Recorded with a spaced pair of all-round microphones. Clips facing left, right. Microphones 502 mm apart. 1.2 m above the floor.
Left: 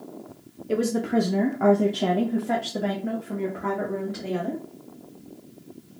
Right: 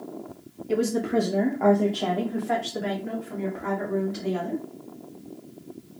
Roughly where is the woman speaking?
Centre.